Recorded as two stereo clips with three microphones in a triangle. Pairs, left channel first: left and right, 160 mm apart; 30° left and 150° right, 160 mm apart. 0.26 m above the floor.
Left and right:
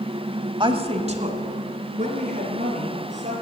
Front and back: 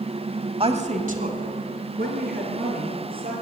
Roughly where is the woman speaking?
Behind right.